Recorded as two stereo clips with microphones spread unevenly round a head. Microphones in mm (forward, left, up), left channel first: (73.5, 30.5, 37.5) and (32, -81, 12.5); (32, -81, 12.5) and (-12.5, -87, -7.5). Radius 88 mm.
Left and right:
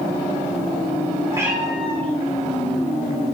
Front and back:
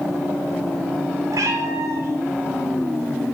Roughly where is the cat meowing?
Behind.